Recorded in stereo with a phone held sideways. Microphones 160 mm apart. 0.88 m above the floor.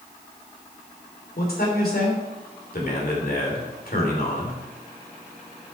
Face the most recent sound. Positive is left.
turn(degrees=70)  # may be behind; listen again after turning